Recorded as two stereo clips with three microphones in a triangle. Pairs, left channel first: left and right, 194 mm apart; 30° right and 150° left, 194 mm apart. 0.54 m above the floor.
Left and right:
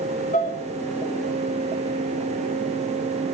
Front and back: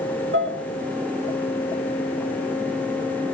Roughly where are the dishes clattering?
Behind left.